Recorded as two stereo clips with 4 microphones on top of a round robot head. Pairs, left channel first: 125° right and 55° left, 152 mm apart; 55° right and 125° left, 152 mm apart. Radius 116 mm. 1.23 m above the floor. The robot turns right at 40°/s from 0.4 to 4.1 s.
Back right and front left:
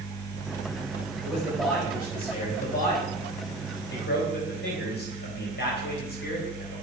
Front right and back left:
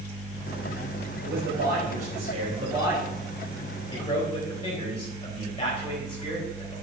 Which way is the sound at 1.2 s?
140° left.